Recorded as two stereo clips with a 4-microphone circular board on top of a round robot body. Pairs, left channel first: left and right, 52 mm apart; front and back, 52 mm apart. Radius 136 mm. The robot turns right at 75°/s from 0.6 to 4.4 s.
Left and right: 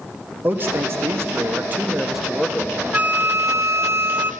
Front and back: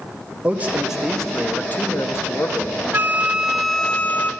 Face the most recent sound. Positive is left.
turn(degrees=-35)